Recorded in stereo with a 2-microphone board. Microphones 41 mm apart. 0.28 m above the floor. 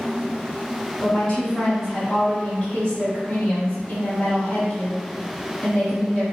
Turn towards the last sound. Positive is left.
turn(degrees=20)  # may be behind; listen again after turning